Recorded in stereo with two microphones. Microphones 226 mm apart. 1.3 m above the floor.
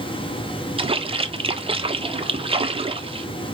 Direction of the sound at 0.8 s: 25° right (ahead or behind).